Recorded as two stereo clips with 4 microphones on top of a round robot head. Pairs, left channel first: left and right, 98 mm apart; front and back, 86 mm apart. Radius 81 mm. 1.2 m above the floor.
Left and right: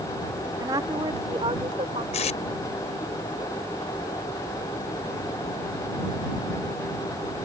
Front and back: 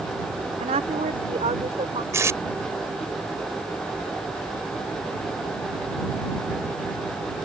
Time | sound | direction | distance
0.6 | a woman speaking | 155° right | ?
2.1 | tape being pulled | 125° left | ?